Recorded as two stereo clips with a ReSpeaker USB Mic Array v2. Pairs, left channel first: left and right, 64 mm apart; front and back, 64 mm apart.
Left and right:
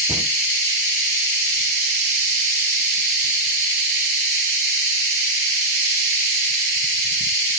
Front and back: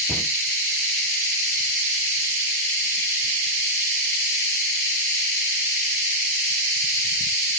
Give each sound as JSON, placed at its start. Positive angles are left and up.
{"t": 0.1, "sound": "a cupboard door", "azimuth_deg": -100, "distance_m": 3.5}